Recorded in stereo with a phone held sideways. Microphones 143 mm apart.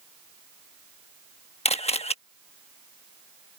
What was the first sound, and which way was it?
A camera shutter, 45° left (ahead or behind).